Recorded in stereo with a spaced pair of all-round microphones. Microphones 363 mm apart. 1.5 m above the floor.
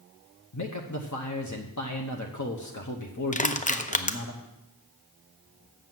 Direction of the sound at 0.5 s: 50° left (ahead or behind).